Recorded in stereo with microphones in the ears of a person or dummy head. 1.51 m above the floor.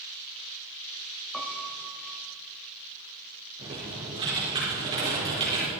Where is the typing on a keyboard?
30° right (ahead or behind), 4.5 m.